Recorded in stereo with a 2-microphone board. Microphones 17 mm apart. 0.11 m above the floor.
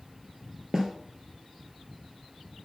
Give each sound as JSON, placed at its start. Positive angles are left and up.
{"t": 0.7, "sound": "a snare drum", "side_deg": -35, "distance_m": 1.7}